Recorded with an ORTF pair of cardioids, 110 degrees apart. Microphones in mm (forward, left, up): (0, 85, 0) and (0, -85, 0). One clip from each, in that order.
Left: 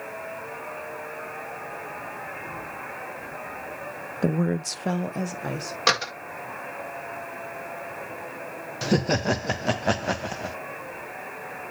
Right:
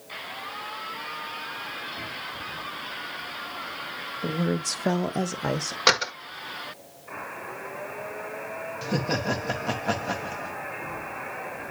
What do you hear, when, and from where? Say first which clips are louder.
4.2 s a woman speaking: left 2 dB; 55° left, 0.6 m; by 5.8 s 30° right, 1.5 m
5.9 s a door slam: right 1 dB; 20° right, 1.5 m
8.8 s laughter: left 4 dB; 50° left, 0.8 m